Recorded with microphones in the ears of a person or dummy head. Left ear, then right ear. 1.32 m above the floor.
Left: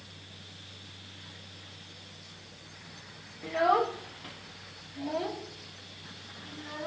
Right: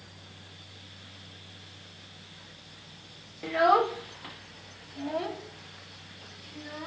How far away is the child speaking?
About 0.6 m.